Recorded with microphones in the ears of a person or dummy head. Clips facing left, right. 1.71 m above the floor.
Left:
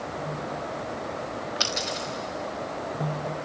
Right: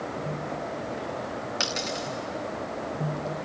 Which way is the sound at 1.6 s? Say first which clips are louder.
Even; 20° right (ahead or behind).